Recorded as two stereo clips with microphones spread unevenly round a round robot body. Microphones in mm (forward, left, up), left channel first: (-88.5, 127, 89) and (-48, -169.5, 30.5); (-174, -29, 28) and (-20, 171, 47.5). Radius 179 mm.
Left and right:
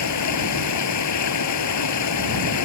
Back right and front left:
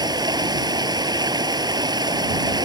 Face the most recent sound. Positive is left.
turn(degrees=125)